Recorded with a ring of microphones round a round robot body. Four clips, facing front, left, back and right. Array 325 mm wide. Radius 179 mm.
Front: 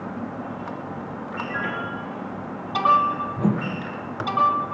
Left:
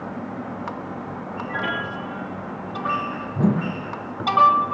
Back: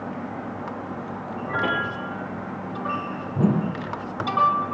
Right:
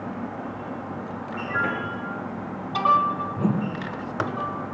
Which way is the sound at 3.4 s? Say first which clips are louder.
Left 8 dB, back 6 dB; 140° left.